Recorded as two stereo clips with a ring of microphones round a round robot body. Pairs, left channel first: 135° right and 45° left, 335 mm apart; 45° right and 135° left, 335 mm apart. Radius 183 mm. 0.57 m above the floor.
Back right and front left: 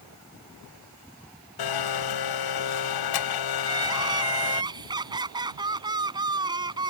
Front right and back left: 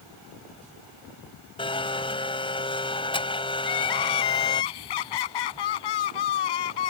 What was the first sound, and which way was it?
A blender, 120° right.